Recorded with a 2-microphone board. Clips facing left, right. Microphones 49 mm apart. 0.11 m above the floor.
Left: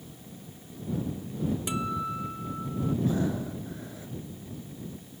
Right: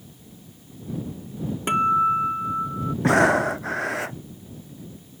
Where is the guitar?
45° right (ahead or behind).